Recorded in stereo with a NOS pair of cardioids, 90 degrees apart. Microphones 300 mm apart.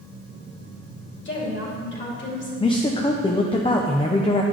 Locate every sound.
1.2 s a woman speaking: 40° left, 2.5 m
2.6 s a man speaking: 20° left, 0.6 m